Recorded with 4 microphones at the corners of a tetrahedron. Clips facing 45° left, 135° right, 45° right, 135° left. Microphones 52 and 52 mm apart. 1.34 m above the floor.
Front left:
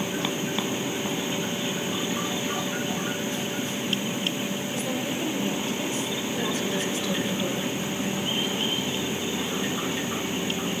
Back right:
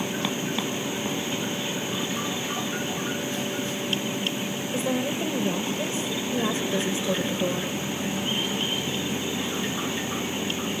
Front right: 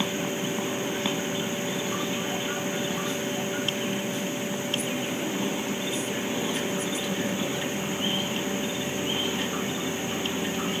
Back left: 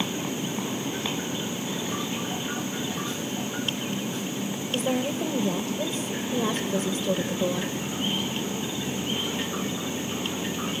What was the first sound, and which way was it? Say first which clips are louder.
A woman speaking: back right 6 dB, back left 3 dB; 170° left.